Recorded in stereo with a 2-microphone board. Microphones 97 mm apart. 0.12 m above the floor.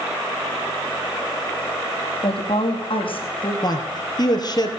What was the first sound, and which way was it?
A woman speaking, 65° left (ahead or behind).